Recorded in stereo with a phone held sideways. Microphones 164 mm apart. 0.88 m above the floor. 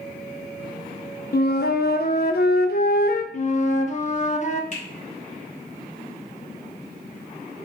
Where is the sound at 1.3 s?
70° left (ahead or behind), 0.6 m.